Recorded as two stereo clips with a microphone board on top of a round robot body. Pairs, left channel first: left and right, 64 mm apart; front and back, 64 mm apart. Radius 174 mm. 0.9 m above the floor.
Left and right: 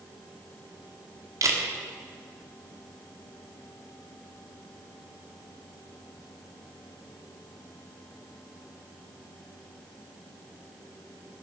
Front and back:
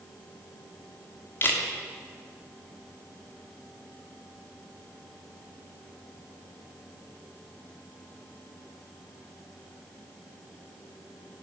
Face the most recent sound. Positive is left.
turn(degrees=-55)